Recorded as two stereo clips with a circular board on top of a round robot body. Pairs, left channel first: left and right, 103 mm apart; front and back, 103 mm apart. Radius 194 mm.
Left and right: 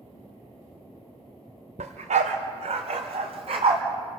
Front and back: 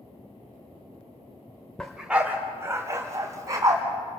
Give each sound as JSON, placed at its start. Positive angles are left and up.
{"t": 1.8, "sound": "a dog barking", "azimuth_deg": -80, "distance_m": 0.6}